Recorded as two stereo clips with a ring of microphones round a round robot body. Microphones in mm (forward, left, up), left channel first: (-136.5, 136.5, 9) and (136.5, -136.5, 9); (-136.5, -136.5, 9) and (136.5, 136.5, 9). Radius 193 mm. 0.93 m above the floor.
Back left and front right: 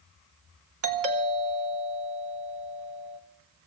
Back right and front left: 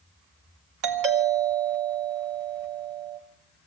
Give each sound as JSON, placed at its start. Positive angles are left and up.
{"t": 0.8, "sound": "a doorbell", "azimuth_deg": 10, "distance_m": 3.0}